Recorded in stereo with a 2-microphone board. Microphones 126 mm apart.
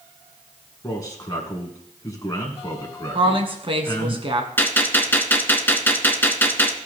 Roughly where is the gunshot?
Centre.